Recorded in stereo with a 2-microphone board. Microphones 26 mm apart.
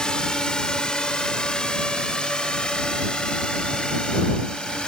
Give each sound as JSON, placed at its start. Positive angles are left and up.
{"t": 0.0, "sound": "a drone", "side_deg": 35}